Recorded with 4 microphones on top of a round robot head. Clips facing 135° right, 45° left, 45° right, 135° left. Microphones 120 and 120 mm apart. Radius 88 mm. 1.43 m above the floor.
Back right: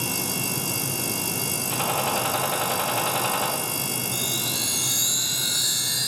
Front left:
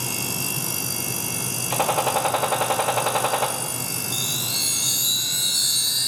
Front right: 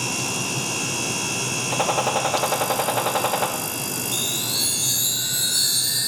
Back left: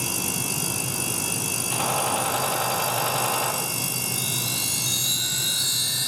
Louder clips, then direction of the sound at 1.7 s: Front left 5 dB, front right 4 dB; 5° right.